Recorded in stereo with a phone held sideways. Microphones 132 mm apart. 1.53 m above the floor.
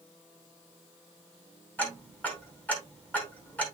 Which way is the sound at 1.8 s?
10° left (ahead or behind).